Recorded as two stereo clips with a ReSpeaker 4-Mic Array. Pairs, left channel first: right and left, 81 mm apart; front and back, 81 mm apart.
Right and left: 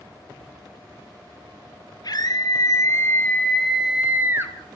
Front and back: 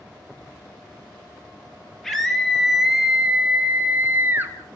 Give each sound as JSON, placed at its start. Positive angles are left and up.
{"t": 2.0, "sound": "a scream", "azimuth_deg": -85, "distance_m": 2.0}